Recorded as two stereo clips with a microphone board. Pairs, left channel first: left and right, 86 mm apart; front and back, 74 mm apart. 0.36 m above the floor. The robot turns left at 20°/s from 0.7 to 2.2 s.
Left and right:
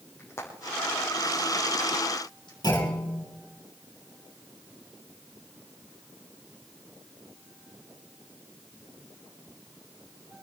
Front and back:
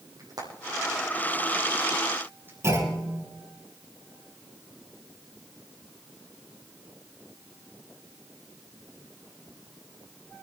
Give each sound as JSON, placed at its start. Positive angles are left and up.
{"t": 0.2, "sound": "frying", "azimuth_deg": 150, "distance_m": 6.5}
{"t": 2.6, "sound": "a clunk", "azimuth_deg": 130, "distance_m": 8.0}